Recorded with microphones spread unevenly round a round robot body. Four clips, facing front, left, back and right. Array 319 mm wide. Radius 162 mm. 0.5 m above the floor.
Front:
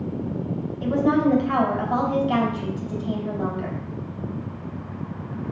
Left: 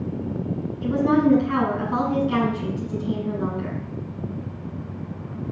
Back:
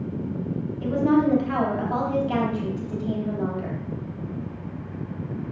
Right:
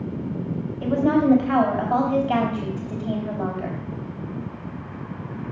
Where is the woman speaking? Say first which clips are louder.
Even, even; 65° right, 4 m.